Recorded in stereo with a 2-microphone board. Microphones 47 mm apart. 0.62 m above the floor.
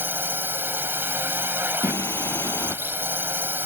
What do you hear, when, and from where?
0.0 s a drone: 50° right (ahead or behind)
1.8 s singing: 80° left